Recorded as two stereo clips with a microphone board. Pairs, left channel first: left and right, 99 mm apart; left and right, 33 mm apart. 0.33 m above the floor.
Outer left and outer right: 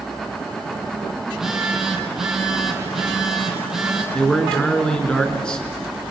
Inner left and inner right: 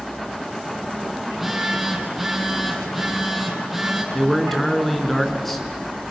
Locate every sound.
1.2 s a phone buzzing: 5° right (ahead or behind), 5 m
4.1 s a man speaking: 10° left (ahead or behind), 4 m